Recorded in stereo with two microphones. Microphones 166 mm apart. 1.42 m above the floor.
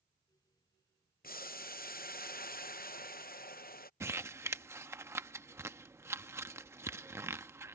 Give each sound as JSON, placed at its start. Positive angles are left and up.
{"t": 1.2, "sound": "boiling", "side_deg": 65}
{"t": 4.0, "sound": "crumpling", "side_deg": -15}